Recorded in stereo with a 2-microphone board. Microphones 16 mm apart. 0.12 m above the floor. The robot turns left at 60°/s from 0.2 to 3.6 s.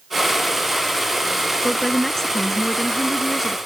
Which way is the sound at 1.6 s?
15° left (ahead or behind).